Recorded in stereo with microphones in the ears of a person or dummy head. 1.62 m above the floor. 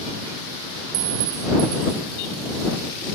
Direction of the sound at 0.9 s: 45° right (ahead or behind).